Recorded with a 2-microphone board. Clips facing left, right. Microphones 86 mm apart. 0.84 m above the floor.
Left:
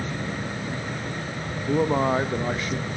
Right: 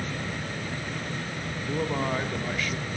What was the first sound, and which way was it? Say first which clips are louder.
A man speaking: left 7 dB; 30° left (ahead or behind).